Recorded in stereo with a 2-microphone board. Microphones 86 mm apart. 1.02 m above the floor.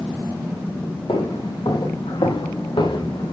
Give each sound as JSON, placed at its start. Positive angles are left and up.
{"t": 1.1, "sound": "footsteps", "side_deg": 75, "distance_m": 5.0}